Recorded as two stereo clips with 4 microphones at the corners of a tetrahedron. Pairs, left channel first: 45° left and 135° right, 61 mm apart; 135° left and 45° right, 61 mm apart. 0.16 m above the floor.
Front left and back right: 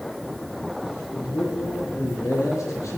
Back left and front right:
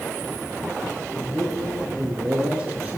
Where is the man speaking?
45° left, 2.5 m; by 3.0 s 15° left, 2.5 m.